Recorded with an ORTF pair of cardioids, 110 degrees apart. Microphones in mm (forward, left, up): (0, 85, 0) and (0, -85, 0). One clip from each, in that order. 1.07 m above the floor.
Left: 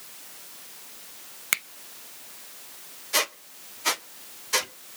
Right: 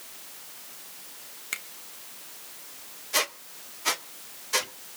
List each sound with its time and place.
1.5 s a finger snap: 55° left, 0.6 m
3.1 s a squeak: 15° left, 0.6 m